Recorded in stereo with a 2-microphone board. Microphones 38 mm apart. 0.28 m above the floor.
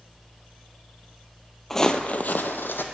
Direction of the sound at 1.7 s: 5° left (ahead or behind).